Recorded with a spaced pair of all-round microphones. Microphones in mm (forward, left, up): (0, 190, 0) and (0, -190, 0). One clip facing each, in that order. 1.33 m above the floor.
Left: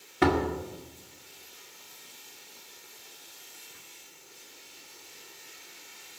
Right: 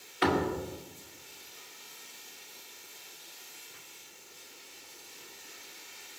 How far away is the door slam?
About 2 m.